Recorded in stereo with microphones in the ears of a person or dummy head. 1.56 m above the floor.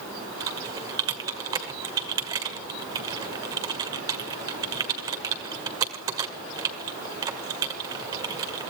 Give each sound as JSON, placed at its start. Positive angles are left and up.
{"t": 0.4, "sound": "typing on a keyboard", "side_deg": -25, "distance_m": 1.8}